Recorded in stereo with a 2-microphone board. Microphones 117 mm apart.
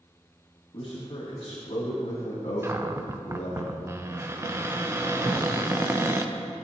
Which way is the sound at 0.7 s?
50° left (ahead or behind).